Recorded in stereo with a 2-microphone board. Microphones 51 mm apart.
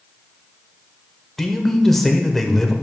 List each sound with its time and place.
1.4 s a man speaking: 5° left (ahead or behind), 1.0 m